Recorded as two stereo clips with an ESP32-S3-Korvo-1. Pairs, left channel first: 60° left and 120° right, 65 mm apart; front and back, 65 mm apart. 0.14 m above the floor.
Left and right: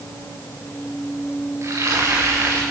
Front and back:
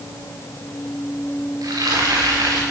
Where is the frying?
160° right, 6.5 m.